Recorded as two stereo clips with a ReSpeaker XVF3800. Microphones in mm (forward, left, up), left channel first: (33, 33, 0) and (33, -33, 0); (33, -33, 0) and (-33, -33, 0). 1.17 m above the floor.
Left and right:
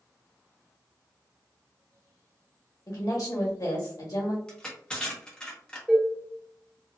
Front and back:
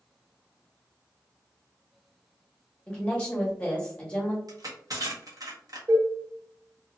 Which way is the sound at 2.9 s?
70° left.